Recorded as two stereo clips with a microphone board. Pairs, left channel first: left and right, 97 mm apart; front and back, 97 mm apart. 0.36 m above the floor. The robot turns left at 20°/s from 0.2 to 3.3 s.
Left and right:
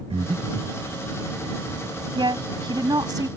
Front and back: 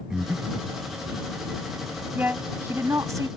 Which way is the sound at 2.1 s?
110° right.